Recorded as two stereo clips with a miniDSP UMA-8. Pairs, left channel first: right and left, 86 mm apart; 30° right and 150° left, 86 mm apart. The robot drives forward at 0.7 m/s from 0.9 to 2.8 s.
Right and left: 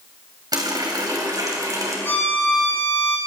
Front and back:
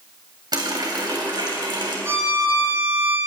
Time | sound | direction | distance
0.5 | a running tap | 120° left | 3 m
2.0 | a violin | 150° right | 3.5 m